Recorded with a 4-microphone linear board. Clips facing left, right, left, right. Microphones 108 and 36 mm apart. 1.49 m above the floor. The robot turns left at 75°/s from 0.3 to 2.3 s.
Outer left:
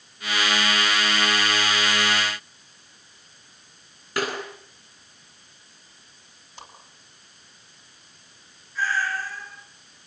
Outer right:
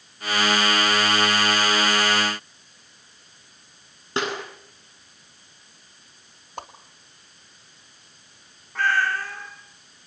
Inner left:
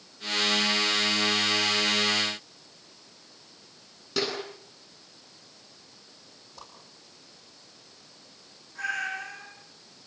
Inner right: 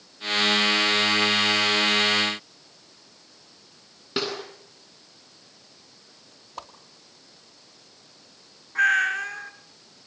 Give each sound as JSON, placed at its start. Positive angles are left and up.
{"t": 4.2, "sound": "a snare drum", "side_deg": -25, "distance_m": 9.5}
{"t": 6.6, "sound": "a whoosh", "side_deg": -55, "distance_m": 3.0}
{"t": 8.8, "sound": "a cat meowing", "side_deg": -65, "distance_m": 3.0}